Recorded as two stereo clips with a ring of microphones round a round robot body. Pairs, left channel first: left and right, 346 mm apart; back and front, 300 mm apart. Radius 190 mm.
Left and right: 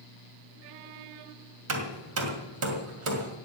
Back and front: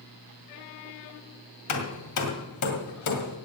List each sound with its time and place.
1.7 s hammering: 140° right, 2 m